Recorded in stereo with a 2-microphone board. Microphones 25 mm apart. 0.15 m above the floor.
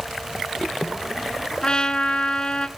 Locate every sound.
1.6 s a trumpet: 30° left (ahead or behind), 1.2 m